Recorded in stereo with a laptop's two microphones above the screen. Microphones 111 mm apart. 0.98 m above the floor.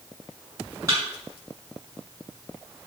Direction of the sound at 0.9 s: 25° right (ahead or behind).